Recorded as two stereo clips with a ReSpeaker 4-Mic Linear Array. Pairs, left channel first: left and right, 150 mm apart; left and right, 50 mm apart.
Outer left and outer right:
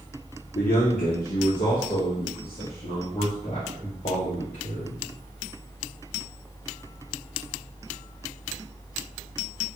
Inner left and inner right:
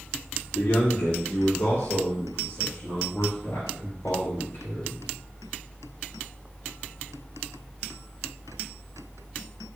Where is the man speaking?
70° left (ahead or behind), 0.8 m; by 5.0 s 85° left, 3 m.